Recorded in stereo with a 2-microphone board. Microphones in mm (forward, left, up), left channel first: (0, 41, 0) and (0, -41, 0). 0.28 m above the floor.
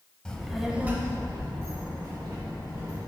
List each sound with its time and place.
0.2 s a child speaking: 10° left (ahead or behind), 1.1 m; by 3.0 s 40° right (ahead or behind), 3 m